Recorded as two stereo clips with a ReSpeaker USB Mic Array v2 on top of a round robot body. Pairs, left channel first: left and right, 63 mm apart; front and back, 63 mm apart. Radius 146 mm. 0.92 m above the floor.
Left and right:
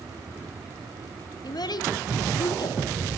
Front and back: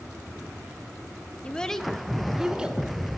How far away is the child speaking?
About 1.4 m.